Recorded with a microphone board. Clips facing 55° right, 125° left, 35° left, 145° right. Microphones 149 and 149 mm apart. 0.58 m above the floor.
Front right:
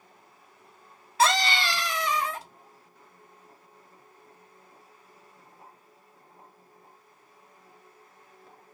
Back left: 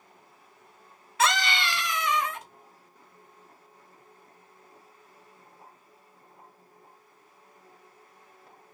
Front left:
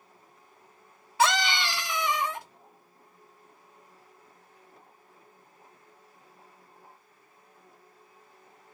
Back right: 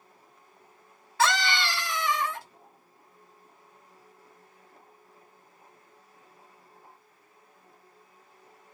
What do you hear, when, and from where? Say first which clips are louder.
1.2 s a scream: front right 2 dB, front left 1 dB; 30° right, 0.9 m